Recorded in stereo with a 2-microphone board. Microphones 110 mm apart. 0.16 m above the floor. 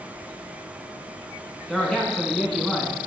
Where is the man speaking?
5° left (ahead or behind), 1.2 m.